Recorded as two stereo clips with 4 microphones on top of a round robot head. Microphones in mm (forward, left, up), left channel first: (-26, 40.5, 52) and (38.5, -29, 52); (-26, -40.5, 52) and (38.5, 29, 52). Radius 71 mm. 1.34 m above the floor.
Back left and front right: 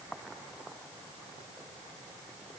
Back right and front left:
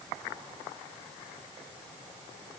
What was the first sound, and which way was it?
Only background noise.